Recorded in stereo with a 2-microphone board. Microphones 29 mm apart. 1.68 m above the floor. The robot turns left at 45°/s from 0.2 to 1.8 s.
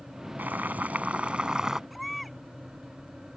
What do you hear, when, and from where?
0.4 s boiling: 100° right; by 1.8 s 165° right
1.9 s a baby crying: 5° left (ahead or behind)